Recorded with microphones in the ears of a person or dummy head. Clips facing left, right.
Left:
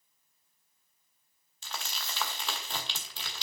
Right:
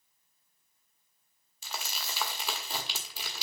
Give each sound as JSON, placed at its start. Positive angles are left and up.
{"t": 1.6, "sound": "crumpling", "side_deg": -5, "distance_m": 1.0}